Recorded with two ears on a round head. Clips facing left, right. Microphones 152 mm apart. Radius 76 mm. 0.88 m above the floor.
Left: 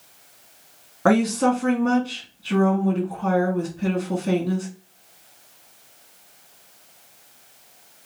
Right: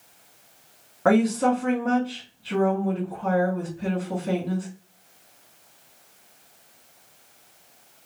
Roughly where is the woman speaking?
Left.